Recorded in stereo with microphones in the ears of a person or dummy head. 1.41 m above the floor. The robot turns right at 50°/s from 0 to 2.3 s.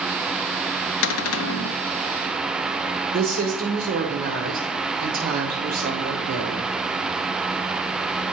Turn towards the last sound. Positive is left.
turn(degrees=-50)  # may be behind; listen again after turning